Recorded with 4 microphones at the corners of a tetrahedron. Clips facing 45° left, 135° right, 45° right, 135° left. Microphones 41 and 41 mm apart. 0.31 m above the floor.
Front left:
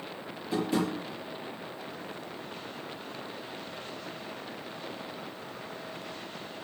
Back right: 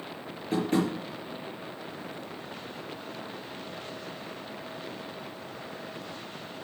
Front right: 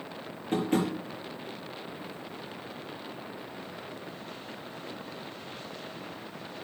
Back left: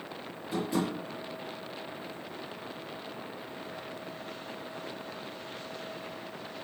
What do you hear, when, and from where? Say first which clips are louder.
0.5 s tapping: back right 2 dB, front right 3 dB; 90° right, 5.5 m